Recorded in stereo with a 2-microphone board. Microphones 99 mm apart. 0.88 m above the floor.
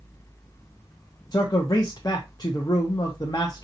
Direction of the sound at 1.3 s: 45° left (ahead or behind).